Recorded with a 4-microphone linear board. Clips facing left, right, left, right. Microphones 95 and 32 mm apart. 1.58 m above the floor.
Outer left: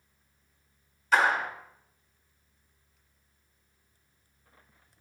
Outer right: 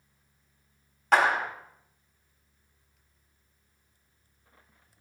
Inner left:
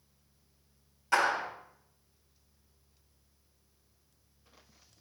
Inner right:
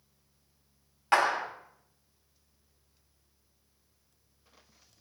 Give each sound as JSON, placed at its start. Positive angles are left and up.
{"t": 1.1, "sound": "a clap", "side_deg": -60, "distance_m": 2.0}